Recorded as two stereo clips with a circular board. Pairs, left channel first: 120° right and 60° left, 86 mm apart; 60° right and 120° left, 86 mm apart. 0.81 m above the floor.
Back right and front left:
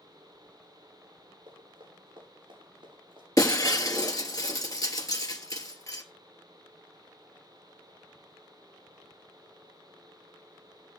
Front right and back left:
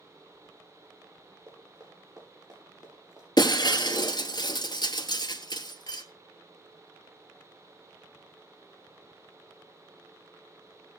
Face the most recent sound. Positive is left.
turn(degrees=-80)